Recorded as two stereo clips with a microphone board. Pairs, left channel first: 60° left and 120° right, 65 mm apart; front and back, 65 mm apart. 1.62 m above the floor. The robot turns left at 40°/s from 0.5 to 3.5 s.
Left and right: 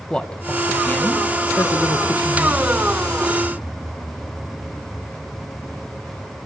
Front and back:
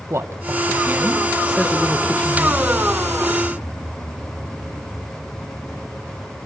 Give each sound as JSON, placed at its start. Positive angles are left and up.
{"t": 0.1, "sound": "a man speaking", "azimuth_deg": 135, "distance_m": 1.9}